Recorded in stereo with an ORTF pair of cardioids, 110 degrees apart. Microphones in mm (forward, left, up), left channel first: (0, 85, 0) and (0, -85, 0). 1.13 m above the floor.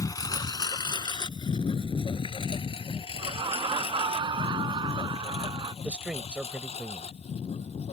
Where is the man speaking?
10° right.